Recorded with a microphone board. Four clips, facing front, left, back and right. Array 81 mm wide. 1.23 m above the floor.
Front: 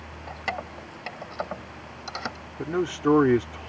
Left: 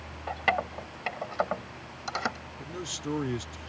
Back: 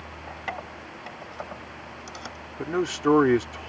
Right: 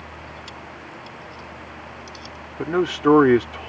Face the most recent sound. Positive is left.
turn(degrees=-100)